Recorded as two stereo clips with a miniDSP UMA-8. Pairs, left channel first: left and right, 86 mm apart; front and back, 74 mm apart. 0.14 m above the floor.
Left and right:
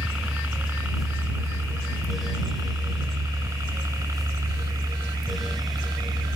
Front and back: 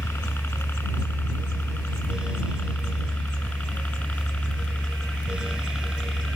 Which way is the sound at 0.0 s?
30° right.